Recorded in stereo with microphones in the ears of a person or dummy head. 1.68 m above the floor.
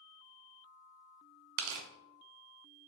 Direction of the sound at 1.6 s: 85° right.